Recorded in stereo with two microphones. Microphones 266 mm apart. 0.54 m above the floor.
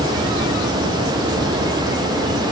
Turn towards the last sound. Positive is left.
No sound to turn to.